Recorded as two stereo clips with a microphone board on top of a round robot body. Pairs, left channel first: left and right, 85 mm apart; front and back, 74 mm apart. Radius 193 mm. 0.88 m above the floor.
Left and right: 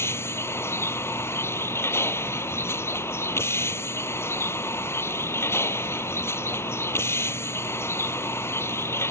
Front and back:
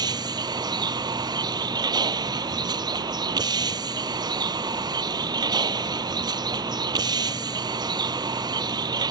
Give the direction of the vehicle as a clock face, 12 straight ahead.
7 o'clock.